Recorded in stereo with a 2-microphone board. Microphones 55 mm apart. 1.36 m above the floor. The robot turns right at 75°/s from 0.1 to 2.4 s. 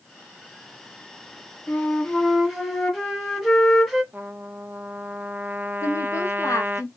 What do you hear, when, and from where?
1.7 s a flute: 125° left, 1.6 m; by 4.0 s straight behind, 1.6 m
4.1 s a trumpet: 35° right (ahead or behind), 0.6 m
5.8 s a woman speaking: 70° left (ahead or behind), 1.0 m